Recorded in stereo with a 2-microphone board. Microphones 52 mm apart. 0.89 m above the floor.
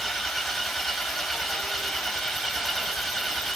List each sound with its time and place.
0.0 s an engine running: 5° left (ahead or behind), 3 m